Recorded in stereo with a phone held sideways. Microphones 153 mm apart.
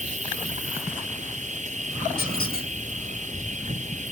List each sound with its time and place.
0.0 s an insect: 50° right (ahead or behind)
2.2 s a squeak: 75° left (ahead or behind)